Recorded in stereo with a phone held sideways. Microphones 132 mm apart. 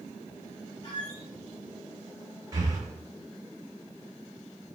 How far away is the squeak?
About 1.7 m.